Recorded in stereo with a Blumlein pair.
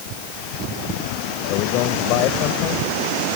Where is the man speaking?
40° left.